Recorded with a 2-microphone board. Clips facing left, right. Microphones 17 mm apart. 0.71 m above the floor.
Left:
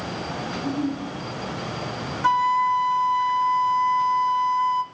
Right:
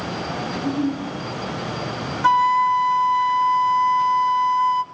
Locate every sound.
0.5 s a giggle: 5° left (ahead or behind), 7 m
2.2 s a flute: 15° right (ahead or behind), 0.6 m